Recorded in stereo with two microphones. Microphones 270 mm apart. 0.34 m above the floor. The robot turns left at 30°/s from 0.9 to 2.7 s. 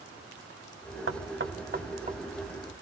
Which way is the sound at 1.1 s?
55° right (ahead or behind).